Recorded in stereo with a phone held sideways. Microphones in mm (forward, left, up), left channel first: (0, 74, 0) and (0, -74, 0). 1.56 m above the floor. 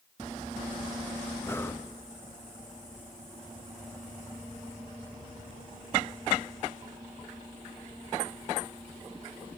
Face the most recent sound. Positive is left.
turn(degrees=15)  # may be behind; listen again after turning